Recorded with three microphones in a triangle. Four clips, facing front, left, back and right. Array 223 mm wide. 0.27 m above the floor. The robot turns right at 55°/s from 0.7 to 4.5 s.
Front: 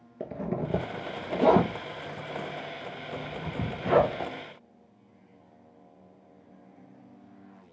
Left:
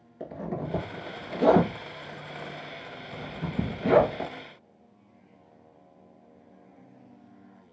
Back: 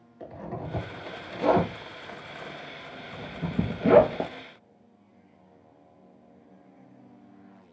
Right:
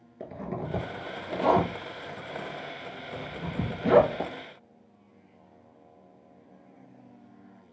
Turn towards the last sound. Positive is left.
turn(degrees=-155)